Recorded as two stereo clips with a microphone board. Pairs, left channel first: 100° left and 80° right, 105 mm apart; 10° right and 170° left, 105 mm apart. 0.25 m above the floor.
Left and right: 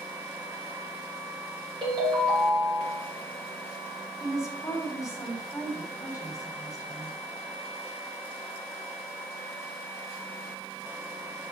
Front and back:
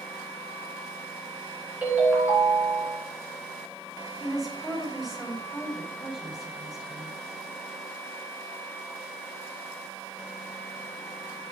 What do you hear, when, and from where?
1.8 s a ringtone: 115° right, 3 m
4.2 s a woman speaking: 85° left, 1.6 m